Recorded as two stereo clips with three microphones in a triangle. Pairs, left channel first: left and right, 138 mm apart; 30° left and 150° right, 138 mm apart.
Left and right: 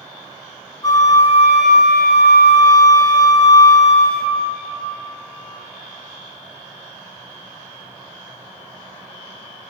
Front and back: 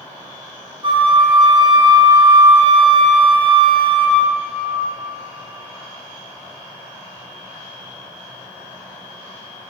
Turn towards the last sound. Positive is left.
turn(degrees=155)